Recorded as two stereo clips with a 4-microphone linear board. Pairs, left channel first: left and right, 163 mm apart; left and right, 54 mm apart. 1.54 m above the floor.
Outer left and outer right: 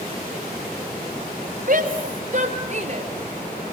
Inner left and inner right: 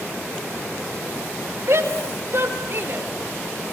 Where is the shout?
60° right (ahead or behind), 4.5 m; by 3.1 s 45° right (ahead or behind), 4 m.